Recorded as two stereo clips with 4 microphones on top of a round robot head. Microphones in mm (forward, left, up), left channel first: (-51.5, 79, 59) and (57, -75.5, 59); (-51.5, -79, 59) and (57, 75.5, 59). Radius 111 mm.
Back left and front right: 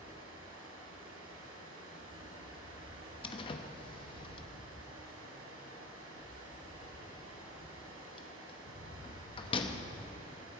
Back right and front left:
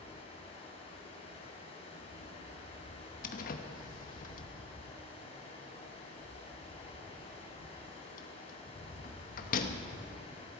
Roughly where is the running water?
Ahead right.